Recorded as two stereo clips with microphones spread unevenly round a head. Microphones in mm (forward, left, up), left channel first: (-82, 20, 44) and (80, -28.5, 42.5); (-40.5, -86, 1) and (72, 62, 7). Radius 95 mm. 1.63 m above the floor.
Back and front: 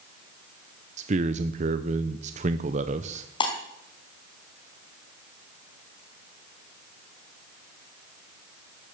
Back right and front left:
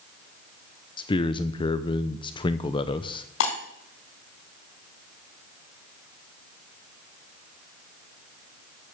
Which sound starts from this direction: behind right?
Breaking glass, at 3.4 s.